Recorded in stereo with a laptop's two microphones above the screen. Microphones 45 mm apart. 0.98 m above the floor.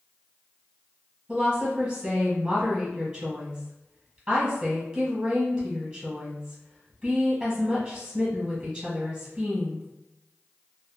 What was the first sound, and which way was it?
A woman speaking, 10° right (ahead or behind).